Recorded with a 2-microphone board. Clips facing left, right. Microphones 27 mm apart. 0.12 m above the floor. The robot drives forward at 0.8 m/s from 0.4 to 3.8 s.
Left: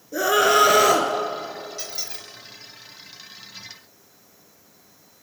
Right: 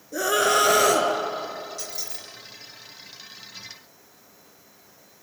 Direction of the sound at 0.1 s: 10° left (ahead or behind).